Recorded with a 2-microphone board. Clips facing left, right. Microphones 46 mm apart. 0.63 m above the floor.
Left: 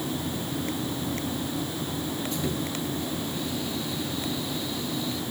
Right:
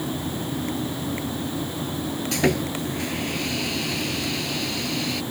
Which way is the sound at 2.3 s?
80° right.